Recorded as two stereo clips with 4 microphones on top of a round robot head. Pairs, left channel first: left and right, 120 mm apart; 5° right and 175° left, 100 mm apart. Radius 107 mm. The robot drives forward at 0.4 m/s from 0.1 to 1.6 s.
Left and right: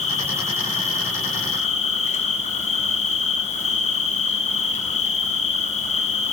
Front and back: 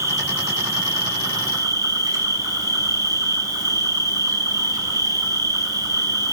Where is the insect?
115° left, 5 m; by 6.3 s 120° left, 5 m.